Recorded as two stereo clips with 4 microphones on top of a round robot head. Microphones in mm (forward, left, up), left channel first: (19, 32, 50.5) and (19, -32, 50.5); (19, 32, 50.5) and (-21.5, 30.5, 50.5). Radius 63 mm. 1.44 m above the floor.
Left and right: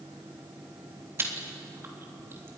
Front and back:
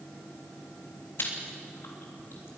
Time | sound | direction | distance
1.2 | chewing | 35° right | 3.5 m